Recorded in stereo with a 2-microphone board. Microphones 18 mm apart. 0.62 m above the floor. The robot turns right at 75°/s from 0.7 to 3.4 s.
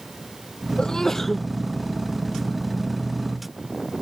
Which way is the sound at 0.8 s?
135° left.